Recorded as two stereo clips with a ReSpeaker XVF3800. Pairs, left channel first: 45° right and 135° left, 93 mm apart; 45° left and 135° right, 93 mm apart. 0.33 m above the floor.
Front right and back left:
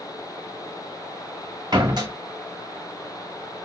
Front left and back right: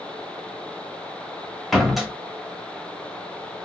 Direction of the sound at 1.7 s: 140° left.